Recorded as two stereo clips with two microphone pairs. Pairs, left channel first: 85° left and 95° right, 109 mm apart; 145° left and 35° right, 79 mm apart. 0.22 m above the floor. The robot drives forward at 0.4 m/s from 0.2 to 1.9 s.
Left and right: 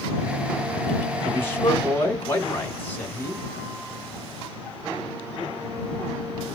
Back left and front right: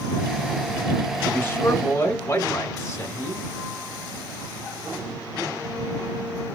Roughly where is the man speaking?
Behind left.